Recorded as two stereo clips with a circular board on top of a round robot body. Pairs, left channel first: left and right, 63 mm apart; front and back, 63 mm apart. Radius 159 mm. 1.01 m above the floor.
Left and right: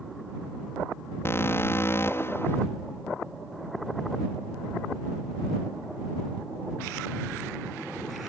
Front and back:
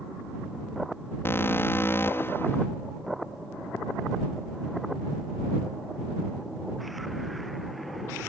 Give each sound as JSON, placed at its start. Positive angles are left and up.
{"t": 1.2, "sound": "an alarm", "azimuth_deg": 45}